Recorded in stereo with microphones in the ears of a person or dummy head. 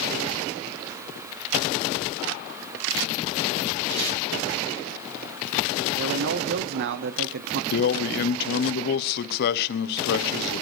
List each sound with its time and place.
3.9 s tape being pulled: 65° right (ahead or behind), 8 m
6.0 s a man speaking: 55° right (ahead or behind), 0.7 m
7.7 s a man speaking: 55° left (ahead or behind), 1.0 m